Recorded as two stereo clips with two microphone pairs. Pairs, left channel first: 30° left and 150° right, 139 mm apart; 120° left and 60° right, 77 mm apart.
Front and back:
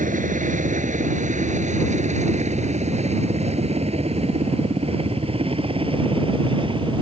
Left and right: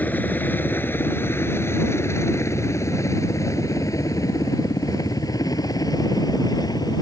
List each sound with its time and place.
0.0 s a helicopter: 170° right; by 7.0 s 155° left